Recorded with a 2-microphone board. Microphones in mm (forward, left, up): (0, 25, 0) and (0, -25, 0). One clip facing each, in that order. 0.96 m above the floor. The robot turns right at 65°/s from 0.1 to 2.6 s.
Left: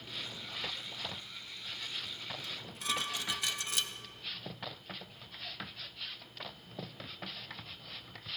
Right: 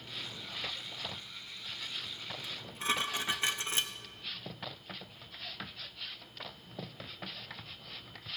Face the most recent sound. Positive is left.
turn(degrees=-35)  # may be behind; listen again after turning